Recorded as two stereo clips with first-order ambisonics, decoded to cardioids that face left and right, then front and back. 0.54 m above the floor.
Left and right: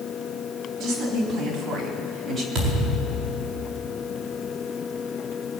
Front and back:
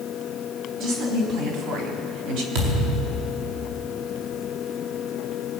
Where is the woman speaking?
145° right, 4.5 m; by 2.5 s 170° right, 3 m.